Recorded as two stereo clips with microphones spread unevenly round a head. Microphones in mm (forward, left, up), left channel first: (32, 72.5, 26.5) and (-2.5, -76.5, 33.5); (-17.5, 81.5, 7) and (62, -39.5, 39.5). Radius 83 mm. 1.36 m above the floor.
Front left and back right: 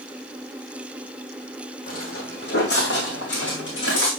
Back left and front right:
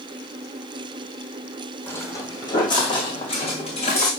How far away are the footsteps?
About 3 m.